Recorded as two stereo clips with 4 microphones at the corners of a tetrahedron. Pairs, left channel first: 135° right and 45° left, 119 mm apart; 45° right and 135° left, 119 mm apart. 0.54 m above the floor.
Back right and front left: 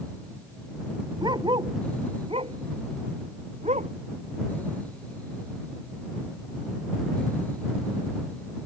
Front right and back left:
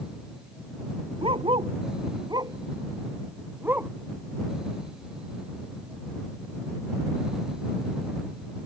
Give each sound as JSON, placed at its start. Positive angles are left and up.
{"t": 1.2, "sound": "a dog barking", "azimuth_deg": 95}